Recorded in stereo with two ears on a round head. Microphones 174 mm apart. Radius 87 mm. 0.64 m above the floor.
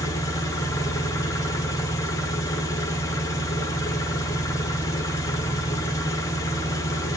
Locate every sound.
0.0 s an engine running: 15° left (ahead or behind), 1.0 m